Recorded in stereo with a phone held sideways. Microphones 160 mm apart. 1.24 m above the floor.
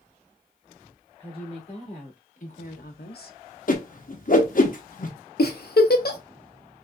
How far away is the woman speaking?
About 2.5 m.